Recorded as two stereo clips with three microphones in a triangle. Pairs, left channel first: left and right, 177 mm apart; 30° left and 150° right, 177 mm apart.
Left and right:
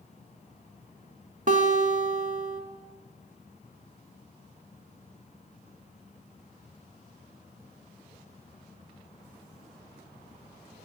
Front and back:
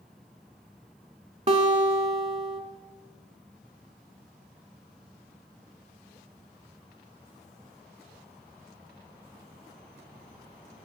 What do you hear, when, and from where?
1.5 s a guitar: 115° right, 0.6 m